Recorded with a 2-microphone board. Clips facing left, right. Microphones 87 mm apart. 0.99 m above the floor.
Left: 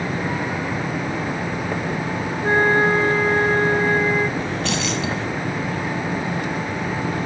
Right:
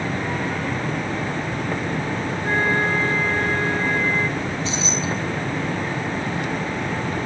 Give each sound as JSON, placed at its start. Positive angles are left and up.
{"t": 2.4, "sound": "a flute", "side_deg": 35}
{"t": 4.4, "sound": "keys jangling", "side_deg": 80}